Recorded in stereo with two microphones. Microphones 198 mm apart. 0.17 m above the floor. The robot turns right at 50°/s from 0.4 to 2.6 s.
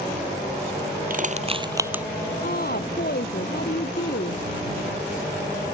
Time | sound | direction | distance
1.1 | crushing | 50° right (ahead or behind) | ?
2.4 | a woman speaking | 50° left (ahead or behind) | ?